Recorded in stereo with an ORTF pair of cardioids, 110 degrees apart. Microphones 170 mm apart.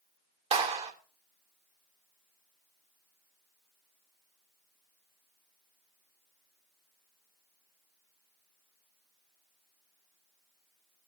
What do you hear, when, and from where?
0.5 s a clap: 40° right, 3 m